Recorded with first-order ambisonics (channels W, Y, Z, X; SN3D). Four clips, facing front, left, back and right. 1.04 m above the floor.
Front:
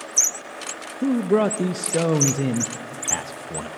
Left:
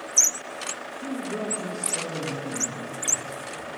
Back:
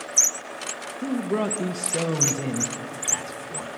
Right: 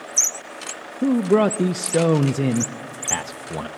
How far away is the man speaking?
About 0.7 m.